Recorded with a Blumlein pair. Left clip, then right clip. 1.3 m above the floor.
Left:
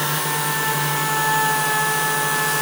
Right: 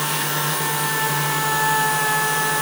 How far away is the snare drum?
I don't hear a snare drum.